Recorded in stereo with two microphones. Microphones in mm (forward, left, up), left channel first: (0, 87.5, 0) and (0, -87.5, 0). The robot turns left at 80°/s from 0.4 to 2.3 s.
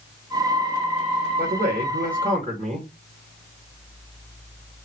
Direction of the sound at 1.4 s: 65° right.